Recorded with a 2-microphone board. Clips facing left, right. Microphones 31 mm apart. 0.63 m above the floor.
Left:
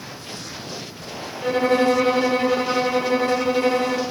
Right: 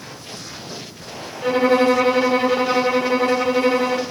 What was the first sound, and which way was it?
A violin, 15° right (ahead or behind).